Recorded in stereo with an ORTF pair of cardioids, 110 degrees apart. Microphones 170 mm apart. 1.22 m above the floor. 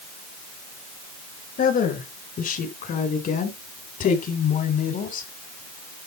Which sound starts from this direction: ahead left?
A woman speaking, at 1.6 s.